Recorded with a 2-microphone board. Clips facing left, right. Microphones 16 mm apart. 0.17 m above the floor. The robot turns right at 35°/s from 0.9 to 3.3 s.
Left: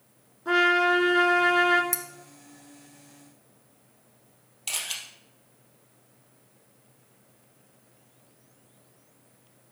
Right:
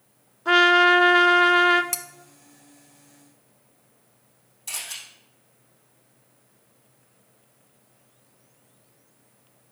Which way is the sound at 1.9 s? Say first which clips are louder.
Right 2 dB; 35° right (ahead or behind).